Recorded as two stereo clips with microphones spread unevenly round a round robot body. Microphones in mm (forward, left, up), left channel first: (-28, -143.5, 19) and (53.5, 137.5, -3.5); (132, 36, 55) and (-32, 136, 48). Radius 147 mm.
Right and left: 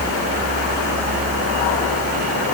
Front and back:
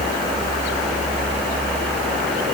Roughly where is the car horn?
I don't hear a car horn.